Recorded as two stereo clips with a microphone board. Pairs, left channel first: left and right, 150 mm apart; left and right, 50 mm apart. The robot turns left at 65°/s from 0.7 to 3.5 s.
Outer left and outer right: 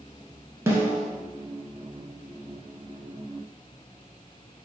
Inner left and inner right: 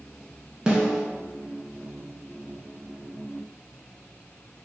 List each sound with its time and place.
0.7 s a snare drum: 20° right (ahead or behind), 0.6 m; by 1.0 s centre (ahead or behind), 0.6 m